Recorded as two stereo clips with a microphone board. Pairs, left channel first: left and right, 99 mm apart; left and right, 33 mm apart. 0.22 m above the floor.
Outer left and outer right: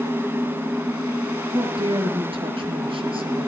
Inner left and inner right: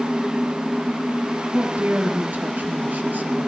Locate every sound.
1.5 s a woman speaking: 75° right (ahead or behind), 5 m